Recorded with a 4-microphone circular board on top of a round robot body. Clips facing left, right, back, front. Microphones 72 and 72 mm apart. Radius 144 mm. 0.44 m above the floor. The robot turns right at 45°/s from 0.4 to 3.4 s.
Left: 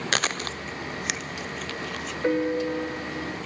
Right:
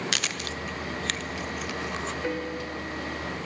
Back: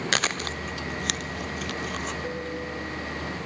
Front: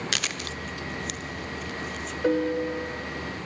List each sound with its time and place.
0.1 s chewing: 135° left, 0.8 m; by 2.1 s 150° right, 0.8 m
2.2 s a piano: 20° left, 0.6 m; by 3.4 s 75° left, 0.6 m